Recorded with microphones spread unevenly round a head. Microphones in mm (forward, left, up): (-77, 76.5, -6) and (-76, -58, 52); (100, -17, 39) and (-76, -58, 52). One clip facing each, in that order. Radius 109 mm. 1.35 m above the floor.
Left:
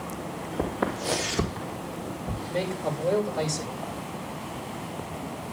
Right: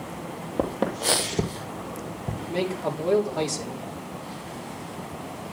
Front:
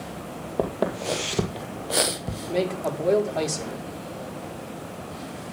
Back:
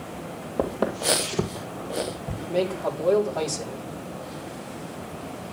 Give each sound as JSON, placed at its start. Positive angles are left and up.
{"t": 0.6, "sound": "footsteps", "azimuth_deg": -75, "distance_m": 3.0}
{"t": 2.5, "sound": "a man speaking", "azimuth_deg": -60, "distance_m": 3.5}